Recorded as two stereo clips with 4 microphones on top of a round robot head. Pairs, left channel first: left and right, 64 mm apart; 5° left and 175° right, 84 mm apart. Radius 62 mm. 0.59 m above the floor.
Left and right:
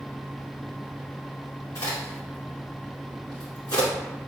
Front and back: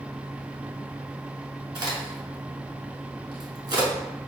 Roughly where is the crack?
Behind left.